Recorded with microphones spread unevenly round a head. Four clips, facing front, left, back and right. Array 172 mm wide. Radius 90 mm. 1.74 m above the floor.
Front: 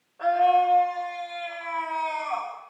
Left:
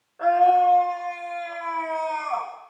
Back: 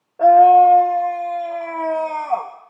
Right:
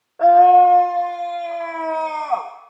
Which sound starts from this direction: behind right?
A scream, at 0.2 s.